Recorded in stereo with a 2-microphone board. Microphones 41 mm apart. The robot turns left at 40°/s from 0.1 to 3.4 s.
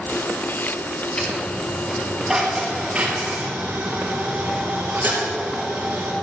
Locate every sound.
1.2 s a dropped coin: 30° left (ahead or behind), 4 m; by 6.1 s 60° right (ahead or behind), 4 m